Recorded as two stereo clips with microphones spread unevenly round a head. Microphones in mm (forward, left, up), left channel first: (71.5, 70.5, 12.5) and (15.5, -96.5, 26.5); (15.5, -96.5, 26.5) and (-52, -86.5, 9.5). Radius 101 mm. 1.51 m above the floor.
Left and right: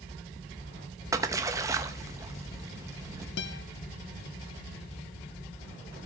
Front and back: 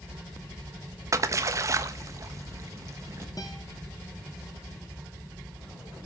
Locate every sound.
1.1 s a splash: 160° right, 0.8 m
3.4 s a guitar: 50° left, 1.0 m